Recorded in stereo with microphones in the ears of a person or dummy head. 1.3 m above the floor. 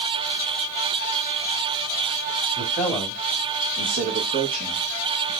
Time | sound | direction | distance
2.6 | a man speaking | 10° left (ahead or behind) | 1.6 m